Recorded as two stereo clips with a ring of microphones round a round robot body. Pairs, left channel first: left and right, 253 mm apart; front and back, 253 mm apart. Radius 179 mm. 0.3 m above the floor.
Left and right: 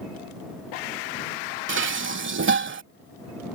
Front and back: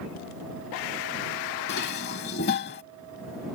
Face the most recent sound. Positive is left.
turn(degrees=-55)